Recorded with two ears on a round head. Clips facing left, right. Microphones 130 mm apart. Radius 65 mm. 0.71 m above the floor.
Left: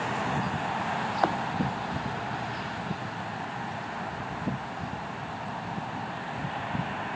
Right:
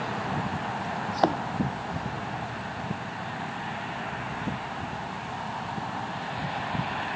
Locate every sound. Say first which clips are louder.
1.1 s a thud: right 4 dB; 25° right (ahead or behind)